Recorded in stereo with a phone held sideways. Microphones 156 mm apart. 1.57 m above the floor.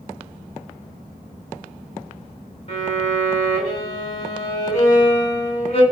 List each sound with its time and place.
2.7 s a violin: 45° left (ahead or behind), 1.8 m